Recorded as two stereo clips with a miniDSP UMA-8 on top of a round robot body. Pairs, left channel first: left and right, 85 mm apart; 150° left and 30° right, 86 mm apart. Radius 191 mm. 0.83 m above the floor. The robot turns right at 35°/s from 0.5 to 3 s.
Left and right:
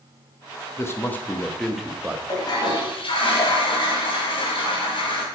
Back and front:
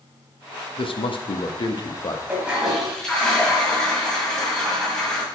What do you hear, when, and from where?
0.8 s a man speaking: 150° left, 1.2 m; by 2.2 s 160° right, 1.2 m
2.3 s a toilet flushing: 40° left, 1.8 m; by 5.2 s 65° left, 1.8 m